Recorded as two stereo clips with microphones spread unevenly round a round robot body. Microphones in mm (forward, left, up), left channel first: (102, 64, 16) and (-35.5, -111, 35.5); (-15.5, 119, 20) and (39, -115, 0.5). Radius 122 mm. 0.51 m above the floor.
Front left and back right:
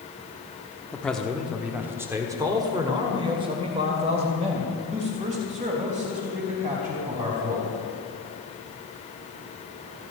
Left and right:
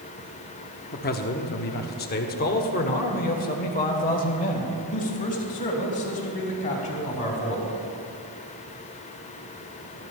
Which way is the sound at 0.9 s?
120° left.